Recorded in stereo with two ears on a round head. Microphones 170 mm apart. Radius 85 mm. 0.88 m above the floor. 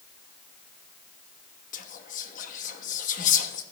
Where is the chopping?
I don't hear chopping.